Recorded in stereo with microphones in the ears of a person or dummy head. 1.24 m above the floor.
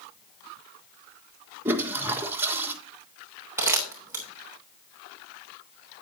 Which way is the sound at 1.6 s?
15° right (ahead or behind).